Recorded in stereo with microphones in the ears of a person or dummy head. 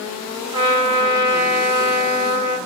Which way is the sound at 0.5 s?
30° right (ahead or behind).